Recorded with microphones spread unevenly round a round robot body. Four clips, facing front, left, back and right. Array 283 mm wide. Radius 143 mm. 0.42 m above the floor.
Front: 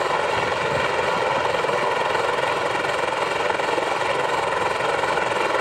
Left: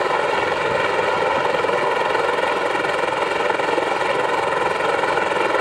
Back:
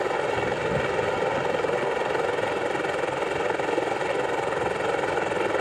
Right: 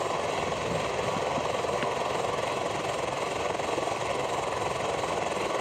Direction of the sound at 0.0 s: 100° left.